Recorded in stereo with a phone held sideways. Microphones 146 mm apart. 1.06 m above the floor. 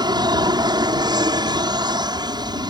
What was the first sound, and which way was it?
An aircraft, 30° right (ahead or behind).